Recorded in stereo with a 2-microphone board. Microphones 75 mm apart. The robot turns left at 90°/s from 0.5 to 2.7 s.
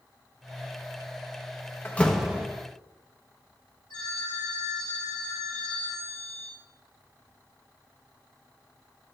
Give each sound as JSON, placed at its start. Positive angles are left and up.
{"t": 1.9, "sound": "a door slam", "side_deg": 30, "distance_m": 0.9}
{"t": 3.9, "sound": "a phone ringing", "side_deg": 75, "distance_m": 4.5}